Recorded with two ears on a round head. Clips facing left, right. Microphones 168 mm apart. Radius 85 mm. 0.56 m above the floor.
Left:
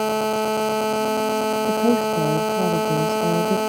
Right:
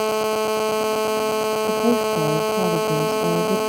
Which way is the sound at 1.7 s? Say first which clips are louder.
Left 1 dB; 5° left (ahead or behind).